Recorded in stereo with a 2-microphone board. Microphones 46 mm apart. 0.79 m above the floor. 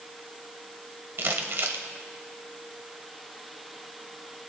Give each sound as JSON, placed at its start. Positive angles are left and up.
{"t": 1.2, "sound": "crumpling", "side_deg": -60, "distance_m": 1.3}